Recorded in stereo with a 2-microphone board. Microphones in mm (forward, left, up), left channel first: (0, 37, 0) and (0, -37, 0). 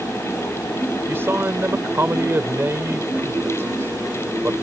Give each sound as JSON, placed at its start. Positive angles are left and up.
{"t": 1.1, "sound": "a man speaking", "side_deg": -35}